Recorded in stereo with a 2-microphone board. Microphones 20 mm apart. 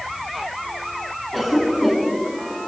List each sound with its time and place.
1.3 s a cough: 10° left (ahead or behind), 8.5 m